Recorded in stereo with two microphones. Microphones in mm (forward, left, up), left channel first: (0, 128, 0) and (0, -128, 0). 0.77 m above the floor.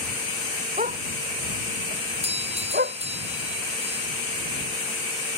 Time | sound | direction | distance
0.8 | a dog barking | 30° right (ahead or behind) | ?
2.2 | a doorbell | 25° right (ahead or behind) | ?